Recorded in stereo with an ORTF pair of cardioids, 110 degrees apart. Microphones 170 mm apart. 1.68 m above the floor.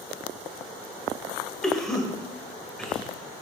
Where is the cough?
5° left, 0.9 m.